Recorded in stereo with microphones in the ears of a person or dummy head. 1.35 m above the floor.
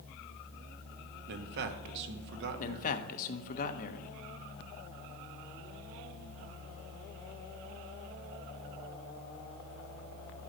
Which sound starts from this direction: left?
A man speaking, at 2.6 s.